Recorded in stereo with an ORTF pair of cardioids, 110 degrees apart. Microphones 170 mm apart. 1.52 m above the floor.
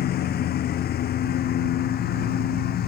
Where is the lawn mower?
65° left.